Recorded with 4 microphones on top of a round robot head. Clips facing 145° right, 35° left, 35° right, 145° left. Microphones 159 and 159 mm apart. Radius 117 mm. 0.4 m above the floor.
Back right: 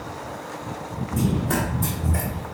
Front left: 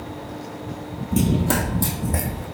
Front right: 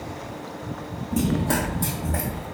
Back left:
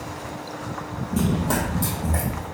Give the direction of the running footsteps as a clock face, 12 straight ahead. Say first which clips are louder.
Front left 3 dB, even; 11 o'clock.